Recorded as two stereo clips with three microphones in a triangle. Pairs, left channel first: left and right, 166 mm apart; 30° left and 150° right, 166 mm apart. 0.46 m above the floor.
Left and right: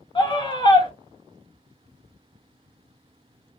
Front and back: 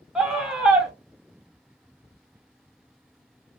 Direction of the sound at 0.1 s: 125° left.